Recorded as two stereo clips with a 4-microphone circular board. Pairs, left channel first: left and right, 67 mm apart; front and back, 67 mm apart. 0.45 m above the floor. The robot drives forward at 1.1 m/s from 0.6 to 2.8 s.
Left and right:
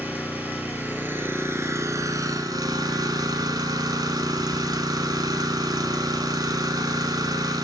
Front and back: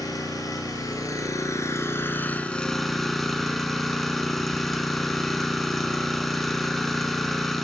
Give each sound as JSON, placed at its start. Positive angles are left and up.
{"t": 0.0, "sound": "an engine running", "azimuth_deg": -25, "distance_m": 3.0}